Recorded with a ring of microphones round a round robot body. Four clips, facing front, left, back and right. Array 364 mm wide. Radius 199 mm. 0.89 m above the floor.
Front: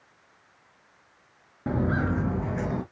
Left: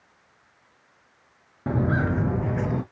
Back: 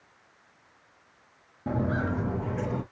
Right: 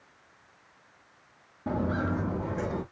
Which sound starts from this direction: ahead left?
Footsteps, at 1.7 s.